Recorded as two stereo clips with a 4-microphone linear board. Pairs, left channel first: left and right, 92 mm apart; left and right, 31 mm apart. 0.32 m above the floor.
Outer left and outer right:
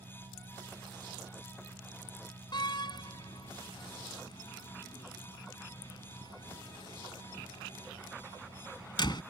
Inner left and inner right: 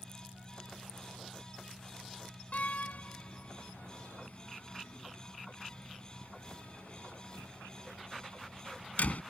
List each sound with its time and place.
0.0 s an engine running: 90° right
2.5 s a door slam: 55° left (ahead or behind)